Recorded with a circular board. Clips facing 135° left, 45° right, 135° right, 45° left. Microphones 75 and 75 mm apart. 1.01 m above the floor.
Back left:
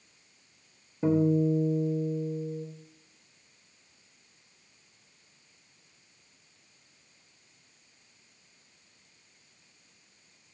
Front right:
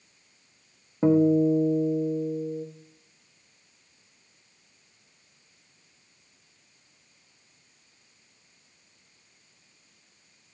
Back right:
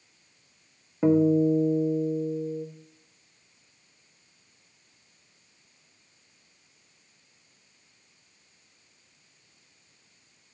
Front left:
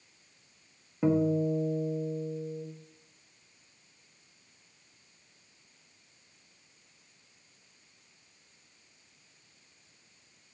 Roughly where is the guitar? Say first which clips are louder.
Front right 5 dB, back right 6 dB; ahead right.